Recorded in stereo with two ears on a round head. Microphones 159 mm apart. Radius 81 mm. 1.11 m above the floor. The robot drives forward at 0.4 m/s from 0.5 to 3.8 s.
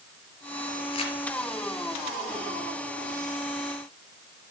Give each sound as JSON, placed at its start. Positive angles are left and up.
{"t": 0.9, "sound": "crumpling", "side_deg": 35, "distance_m": 3.5}